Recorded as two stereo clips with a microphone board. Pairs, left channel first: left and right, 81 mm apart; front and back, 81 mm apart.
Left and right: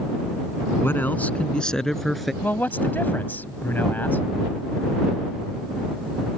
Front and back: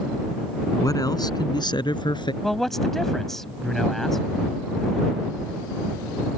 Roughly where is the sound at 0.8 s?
Ahead left.